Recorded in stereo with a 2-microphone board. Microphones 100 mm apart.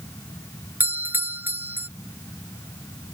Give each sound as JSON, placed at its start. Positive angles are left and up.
{"t": 0.8, "sound": "a doorbell", "side_deg": -20}